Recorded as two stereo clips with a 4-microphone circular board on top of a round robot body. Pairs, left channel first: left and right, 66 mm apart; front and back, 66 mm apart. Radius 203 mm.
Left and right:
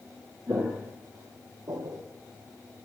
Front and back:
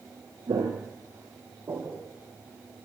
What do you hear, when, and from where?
0.5 s footsteps: 155° right, 1.0 m; by 2.0 s 120° right, 1.7 m